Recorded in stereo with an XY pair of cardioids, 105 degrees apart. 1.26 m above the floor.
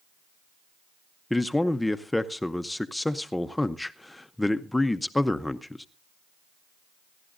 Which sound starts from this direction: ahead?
A man speaking, at 1.3 s.